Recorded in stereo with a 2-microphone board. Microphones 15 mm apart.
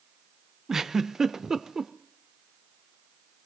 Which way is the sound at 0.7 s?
35° right (ahead or behind).